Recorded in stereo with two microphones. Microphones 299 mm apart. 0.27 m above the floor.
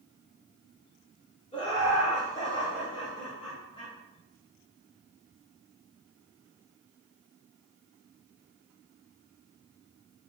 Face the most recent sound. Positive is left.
turn(degrees=15)  # may be behind; listen again after turning